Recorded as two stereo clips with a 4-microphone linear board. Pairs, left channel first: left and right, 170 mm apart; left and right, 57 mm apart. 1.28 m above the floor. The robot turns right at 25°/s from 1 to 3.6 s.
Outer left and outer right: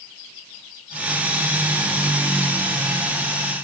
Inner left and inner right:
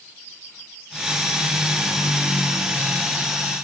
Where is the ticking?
I don't hear ticking.